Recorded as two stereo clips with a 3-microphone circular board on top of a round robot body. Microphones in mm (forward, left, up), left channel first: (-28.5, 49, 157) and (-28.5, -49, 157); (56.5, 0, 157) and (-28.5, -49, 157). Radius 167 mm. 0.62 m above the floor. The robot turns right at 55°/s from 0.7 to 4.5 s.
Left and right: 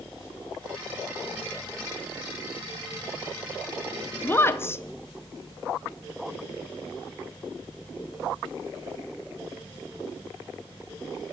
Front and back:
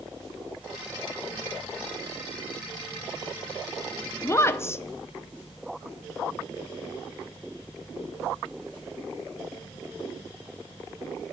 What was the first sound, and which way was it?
A woman speaking, 40° left.